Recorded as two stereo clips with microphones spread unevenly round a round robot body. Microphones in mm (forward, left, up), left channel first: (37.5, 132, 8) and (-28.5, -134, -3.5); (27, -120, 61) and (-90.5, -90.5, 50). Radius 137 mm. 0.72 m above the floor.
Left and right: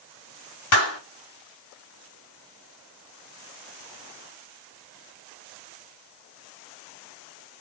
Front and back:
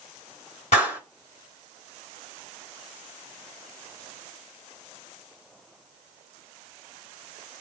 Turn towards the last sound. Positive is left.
turn(degrees=35)